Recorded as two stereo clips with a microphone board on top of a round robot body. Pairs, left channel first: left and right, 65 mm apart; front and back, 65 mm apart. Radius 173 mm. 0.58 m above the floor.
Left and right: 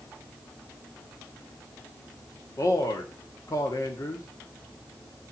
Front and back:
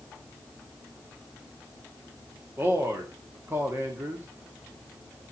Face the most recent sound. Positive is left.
turn(degrees=125)